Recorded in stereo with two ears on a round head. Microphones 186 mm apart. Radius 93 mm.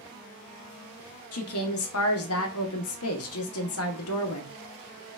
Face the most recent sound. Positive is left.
turn(degrees=80)